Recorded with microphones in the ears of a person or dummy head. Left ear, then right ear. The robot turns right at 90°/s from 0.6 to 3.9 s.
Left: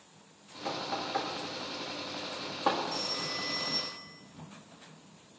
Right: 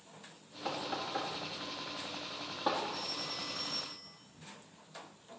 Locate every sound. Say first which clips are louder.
0.7 s knocking: left 3 dB; 15° right (ahead or behind), 1.7 m; by 2.8 s centre (ahead or behind), 1.7 m
2.9 s a phone ringing: left 5 dB; 100° left, 1.4 m; by 4.1 s 175° right, 1.4 m